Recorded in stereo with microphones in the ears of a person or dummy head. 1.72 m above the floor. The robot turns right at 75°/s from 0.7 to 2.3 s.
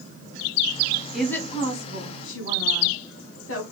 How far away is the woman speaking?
About 1.7 m.